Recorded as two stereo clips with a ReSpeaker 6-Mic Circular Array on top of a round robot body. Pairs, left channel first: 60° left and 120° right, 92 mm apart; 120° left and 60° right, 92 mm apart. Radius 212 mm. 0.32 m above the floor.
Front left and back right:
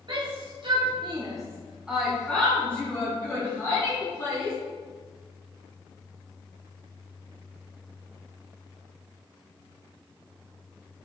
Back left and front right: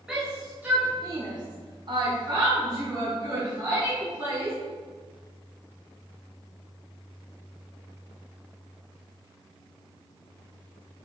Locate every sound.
0.1 s a shout: 140° right, 2.5 m; by 4.6 s straight ahead, 5 m